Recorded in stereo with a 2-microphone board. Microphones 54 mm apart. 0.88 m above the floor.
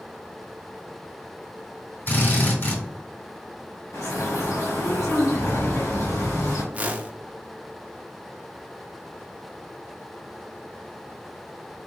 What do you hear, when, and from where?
2.1 s a drill: 45° left (ahead or behind), 2.5 m
3.9 s a bird: 75° left (ahead or behind), 2.5 m
6.7 s a whoosh: 30° right (ahead or behind), 0.5 m